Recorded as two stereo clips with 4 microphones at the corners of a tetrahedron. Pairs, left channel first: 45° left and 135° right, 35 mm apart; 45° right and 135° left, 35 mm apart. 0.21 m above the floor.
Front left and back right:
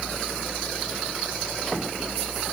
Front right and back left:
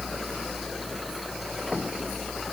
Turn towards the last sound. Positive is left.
No sound to turn to.